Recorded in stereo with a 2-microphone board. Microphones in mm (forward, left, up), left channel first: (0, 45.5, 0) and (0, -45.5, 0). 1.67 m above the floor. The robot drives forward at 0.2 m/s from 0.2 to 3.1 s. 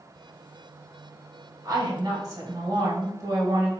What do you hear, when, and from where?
1.6 s a woman speaking: 40° right (ahead or behind), 1.2 m; by 3.7 s 35° right (ahead or behind), 1.3 m